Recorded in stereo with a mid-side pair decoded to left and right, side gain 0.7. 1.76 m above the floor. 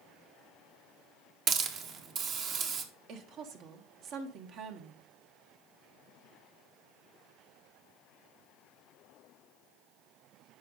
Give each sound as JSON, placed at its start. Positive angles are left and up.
{"t": 1.5, "sound": "a hiss", "azimuth_deg": -45, "distance_m": 1.5}
{"t": 3.1, "sound": "a woman speaking", "azimuth_deg": -55, "distance_m": 1.7}